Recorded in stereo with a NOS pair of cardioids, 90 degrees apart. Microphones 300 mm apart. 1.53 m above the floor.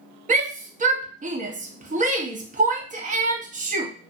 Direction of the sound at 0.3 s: 25° right.